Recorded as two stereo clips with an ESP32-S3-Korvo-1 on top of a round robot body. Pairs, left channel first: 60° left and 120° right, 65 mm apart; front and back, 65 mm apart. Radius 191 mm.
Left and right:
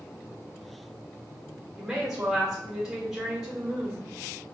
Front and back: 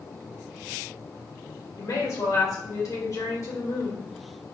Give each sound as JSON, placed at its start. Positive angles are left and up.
{"t": 1.8, "sound": "a woman speaking", "azimuth_deg": -35, "distance_m": 2.0}